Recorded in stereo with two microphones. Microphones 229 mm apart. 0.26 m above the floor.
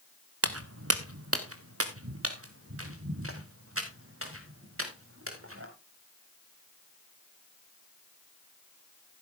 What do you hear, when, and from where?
0.4 s footsteps: 80° right, 1.1 m; by 5.7 s 65° right (ahead or behind), 5 m